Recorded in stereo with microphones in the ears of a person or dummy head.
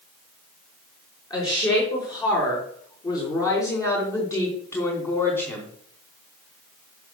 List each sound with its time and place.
1.3 s a woman speaking: 25° left (ahead or behind), 5.5 m; by 5.8 s 15° left (ahead or behind), 3 m